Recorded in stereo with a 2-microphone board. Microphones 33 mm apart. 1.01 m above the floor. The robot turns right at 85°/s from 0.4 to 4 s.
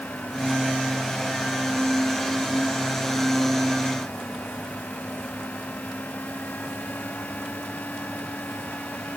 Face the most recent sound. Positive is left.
No sound to turn to.